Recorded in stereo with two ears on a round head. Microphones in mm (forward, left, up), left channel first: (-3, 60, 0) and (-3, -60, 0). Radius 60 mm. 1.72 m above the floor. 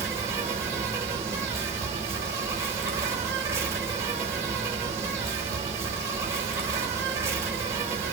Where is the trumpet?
I don't hear a trumpet.